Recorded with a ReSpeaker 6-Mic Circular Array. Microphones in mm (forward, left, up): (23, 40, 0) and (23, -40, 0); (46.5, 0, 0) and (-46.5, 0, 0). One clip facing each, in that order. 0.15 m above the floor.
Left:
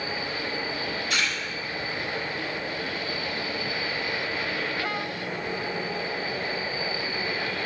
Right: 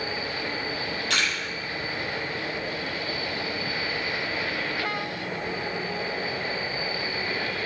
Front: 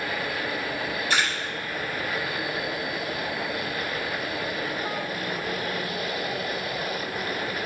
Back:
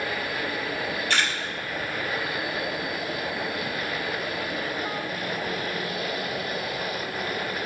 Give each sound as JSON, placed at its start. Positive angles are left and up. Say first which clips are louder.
{"t": 1.1, "sound": "a camera shutter", "louder": "right 1 dB, front 1 dB", "azimuth_deg": -80, "distance_m": 4.0}